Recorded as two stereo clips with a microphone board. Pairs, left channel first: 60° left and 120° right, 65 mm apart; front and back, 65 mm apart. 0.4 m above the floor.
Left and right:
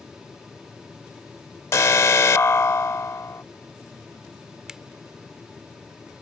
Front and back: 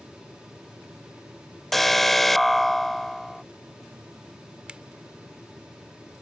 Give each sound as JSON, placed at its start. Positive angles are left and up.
{"t": 1.7, "sound": "an alarm", "azimuth_deg": 85}
{"t": 4.7, "sound": "a finger snap", "azimuth_deg": -165}